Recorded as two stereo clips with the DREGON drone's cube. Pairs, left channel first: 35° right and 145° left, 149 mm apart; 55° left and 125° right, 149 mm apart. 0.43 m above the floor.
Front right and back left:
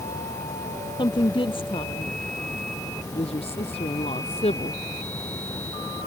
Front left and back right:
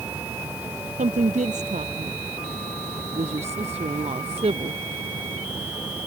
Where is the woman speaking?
90° right; by 4.8 s 80° right.